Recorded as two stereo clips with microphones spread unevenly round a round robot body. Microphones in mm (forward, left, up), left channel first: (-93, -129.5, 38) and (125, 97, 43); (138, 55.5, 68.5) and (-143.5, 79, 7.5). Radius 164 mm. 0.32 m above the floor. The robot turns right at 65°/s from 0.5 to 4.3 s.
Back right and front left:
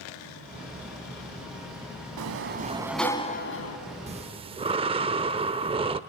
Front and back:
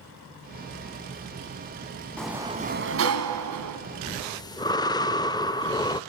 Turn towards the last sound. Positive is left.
turn(degrees=85)